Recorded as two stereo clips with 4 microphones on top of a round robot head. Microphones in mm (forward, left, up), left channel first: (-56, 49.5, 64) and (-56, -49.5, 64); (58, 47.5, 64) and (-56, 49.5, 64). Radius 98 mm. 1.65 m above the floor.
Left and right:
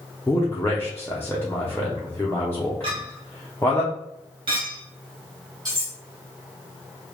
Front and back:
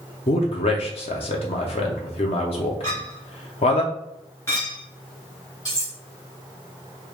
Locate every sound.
0.3 s a man speaking: 15° left, 0.7 m
2.8 s a clink: 75° right, 0.6 m
5.7 s cutlery clinking: 50° right, 1.0 m